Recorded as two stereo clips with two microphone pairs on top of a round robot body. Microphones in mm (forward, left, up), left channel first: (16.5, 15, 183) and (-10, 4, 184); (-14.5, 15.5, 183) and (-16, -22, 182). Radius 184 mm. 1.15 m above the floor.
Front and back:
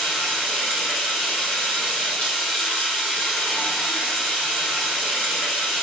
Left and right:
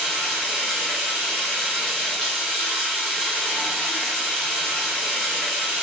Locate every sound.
0.0 s running water: 5° left, 0.9 m